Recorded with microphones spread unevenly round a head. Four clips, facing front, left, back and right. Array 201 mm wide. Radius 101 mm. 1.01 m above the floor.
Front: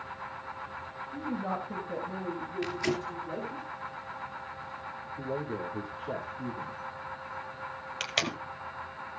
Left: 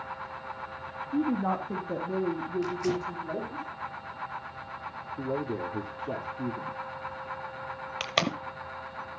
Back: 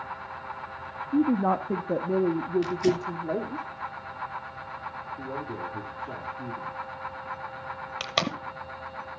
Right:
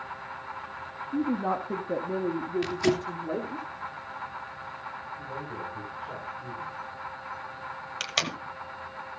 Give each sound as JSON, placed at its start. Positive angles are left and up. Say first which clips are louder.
{"t": 1.1, "sound": "a woman speaking", "louder": "even, back 11 dB", "azimuth_deg": -170, "distance_m": 1.0}
{"t": 2.6, "sound": "tearing paper", "louder": "right 5 dB, back 6 dB", "azimuth_deg": -115, "distance_m": 2.5}
{"t": 5.2, "sound": "a man speaking", "louder": "left 10 dB, front 2 dB", "azimuth_deg": 90, "distance_m": 2.5}
{"t": 8.0, "sound": "tape being pulled", "louder": "left 5 dB, back 5 dB", "azimuth_deg": 140, "distance_m": 1.0}